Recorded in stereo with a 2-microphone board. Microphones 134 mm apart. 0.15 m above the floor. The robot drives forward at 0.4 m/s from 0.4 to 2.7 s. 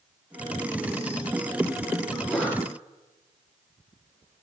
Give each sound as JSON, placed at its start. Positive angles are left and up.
{"t": 2.1, "sound": "a sneeze", "side_deg": 0, "distance_m": 6.0}